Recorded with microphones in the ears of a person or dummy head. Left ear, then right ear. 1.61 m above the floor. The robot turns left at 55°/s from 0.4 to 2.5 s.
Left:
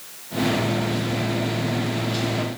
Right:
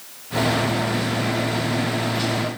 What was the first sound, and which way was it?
Only background noise.